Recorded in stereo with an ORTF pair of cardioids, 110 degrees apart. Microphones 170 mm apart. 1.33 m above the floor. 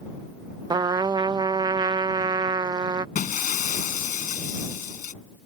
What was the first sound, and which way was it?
A trumpet, 25° right.